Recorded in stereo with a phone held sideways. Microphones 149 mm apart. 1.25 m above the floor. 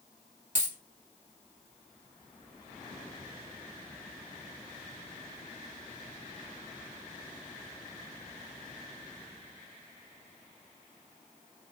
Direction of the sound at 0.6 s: 60° right (ahead or behind).